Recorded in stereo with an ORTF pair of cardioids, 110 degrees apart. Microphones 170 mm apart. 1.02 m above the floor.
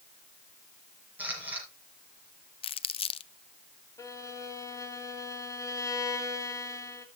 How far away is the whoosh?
I don't hear a whoosh.